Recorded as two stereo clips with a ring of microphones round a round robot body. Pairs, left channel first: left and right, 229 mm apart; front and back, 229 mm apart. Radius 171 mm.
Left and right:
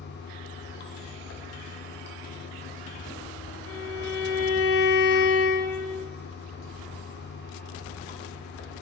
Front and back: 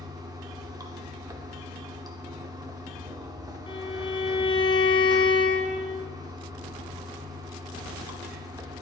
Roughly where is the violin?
Left.